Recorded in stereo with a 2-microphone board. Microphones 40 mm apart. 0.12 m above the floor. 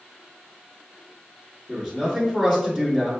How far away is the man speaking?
About 1.3 m.